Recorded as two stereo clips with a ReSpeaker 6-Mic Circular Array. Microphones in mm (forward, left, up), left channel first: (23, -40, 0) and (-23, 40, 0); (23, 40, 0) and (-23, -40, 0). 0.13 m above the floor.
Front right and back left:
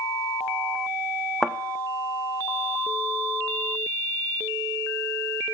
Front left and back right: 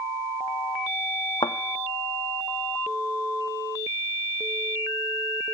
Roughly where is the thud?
Ahead left.